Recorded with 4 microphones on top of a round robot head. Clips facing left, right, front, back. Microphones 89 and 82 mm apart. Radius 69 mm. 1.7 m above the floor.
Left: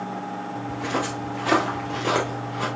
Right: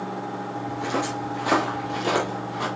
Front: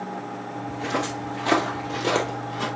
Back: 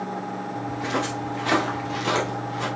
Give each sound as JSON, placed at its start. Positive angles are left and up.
{"t": 0.7, "sound": "footsteps", "azimuth_deg": -115, "distance_m": 1.7}